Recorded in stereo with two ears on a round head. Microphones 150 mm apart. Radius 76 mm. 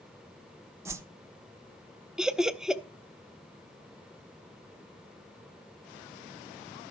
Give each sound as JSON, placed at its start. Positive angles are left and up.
{"t": 0.8, "sound": "a whoosh", "side_deg": -15, "distance_m": 0.7}
{"t": 2.2, "sound": "laughter", "side_deg": -5, "distance_m": 0.6}